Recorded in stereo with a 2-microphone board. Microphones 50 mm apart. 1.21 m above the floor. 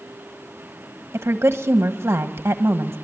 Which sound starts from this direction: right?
A woman speaking, at 1.1 s.